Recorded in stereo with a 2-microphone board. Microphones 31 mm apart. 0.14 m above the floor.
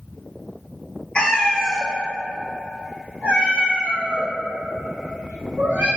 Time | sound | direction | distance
1.1 | a cat meowing | 35° left (ahead or behind) | 0.6 m